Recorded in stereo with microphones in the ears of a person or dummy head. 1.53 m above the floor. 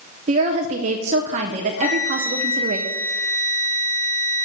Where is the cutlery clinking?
No cutlery clinking in this recording.